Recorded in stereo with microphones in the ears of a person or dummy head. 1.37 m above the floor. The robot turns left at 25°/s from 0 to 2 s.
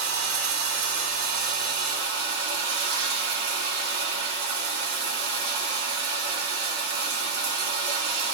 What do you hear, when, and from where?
0.0 s running water: 90° right, 2 m; by 8.3 s 140° right, 2 m